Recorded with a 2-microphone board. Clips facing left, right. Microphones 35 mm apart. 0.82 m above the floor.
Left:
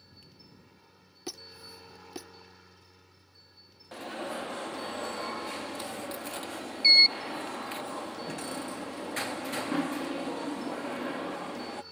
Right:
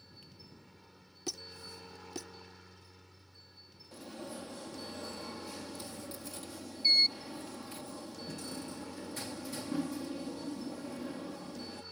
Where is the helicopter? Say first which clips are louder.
Even; 5° left (ahead or behind).